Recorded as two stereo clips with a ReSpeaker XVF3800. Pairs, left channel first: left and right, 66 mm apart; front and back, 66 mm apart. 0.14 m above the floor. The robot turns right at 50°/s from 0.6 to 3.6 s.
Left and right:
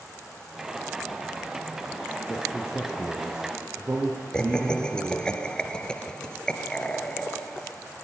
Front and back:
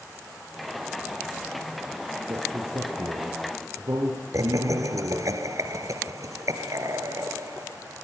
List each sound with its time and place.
2.3 s a man speaking: 140° left, 3.5 m; by 5.3 s 155° right, 3.5 m
4.3 s laughter: 165° left, 2 m